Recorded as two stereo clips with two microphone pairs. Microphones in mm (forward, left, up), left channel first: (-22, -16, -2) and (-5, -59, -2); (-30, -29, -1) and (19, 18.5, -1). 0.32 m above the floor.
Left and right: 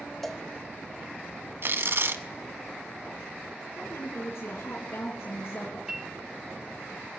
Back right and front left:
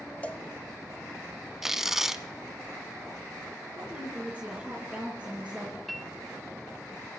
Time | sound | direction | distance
0.2 | a cowbell | 165° right | 0.8 m
1.6 | tearing paper | 40° right | 0.7 m
3.8 | a woman speaking | 110° left | 4 m
5.9 | a piano | 50° right | 1.5 m